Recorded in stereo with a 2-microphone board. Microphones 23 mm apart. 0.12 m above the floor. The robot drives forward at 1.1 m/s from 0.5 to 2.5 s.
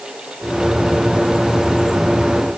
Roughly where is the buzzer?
I don't hear a buzzer.